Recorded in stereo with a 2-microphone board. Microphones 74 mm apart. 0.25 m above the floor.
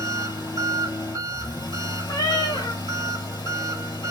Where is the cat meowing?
80° left, 1.3 m.